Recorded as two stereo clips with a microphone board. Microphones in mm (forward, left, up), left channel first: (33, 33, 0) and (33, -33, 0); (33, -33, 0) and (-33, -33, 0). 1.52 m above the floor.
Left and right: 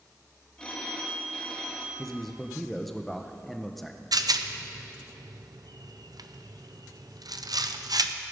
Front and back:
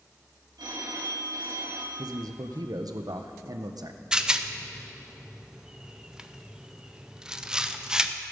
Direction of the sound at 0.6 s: 165° left.